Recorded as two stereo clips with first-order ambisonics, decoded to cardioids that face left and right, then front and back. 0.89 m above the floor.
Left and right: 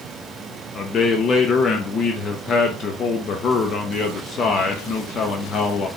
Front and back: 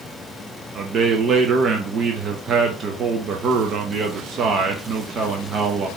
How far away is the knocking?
I don't hear knocking.